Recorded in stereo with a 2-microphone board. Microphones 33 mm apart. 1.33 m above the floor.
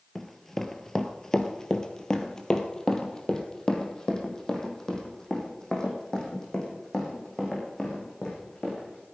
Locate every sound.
0.1 s running footsteps: 10° left (ahead or behind), 1.3 m; by 9.0 s 15° left (ahead or behind), 5 m